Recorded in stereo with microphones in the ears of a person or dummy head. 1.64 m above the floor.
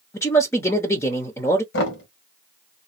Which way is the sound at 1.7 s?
75° left (ahead or behind).